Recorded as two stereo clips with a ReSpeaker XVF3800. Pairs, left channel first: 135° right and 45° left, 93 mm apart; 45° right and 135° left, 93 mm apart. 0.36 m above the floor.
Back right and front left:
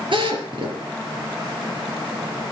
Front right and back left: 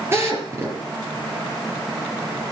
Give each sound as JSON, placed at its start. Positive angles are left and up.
{"t": 0.1, "sound": "a drill", "azimuth_deg": 75, "distance_m": 4.5}